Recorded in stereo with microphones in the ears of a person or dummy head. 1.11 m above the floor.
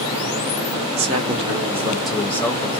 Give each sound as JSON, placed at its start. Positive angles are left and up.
{"t": 0.9, "sound": "a man speaking", "side_deg": -35, "distance_m": 0.8}